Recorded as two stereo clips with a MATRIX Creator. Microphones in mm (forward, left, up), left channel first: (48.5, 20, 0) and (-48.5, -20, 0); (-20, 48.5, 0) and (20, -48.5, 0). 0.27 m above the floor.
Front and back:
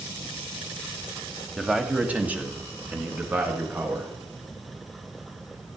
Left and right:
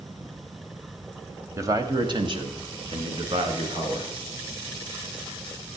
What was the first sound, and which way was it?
A man speaking, 75° right.